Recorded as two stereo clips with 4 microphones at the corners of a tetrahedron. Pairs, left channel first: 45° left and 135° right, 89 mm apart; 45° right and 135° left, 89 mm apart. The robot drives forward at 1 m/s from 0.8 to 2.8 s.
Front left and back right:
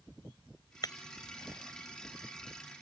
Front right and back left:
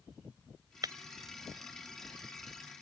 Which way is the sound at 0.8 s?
90° left.